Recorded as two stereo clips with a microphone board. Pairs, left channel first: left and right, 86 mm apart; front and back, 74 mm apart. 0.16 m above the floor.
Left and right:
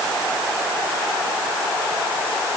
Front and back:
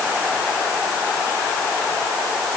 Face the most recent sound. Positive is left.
No sound to turn to.